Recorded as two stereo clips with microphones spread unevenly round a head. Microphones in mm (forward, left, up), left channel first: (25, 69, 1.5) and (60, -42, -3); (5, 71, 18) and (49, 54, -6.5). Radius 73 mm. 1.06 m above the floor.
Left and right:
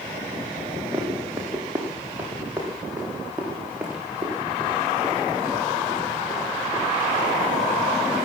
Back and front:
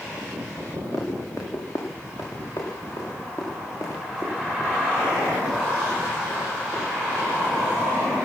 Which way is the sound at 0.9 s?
155° right.